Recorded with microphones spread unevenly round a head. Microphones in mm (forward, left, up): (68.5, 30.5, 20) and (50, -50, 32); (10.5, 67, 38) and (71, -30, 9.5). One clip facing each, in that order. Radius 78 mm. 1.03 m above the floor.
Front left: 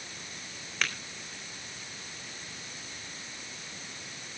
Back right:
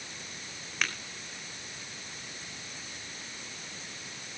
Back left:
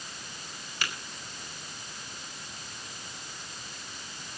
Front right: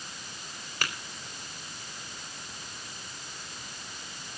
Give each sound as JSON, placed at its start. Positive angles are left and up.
{"t": 0.8, "sound": "tapping", "azimuth_deg": -15, "distance_m": 4.0}